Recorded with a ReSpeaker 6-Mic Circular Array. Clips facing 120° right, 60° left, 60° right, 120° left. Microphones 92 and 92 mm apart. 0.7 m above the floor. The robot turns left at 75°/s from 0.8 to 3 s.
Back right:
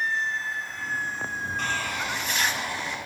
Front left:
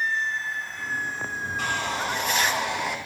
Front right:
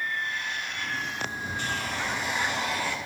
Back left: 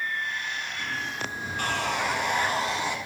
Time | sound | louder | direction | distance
1.6 | sawing | front left 3 dB, back left 5 dB | 145° left | 5 m